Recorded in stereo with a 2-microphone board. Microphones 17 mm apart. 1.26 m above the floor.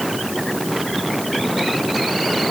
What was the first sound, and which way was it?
Only background noise.